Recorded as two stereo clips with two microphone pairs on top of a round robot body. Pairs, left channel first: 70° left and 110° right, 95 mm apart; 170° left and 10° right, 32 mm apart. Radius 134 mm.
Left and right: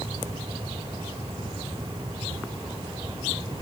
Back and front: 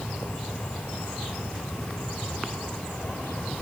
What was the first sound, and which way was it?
Only background noise.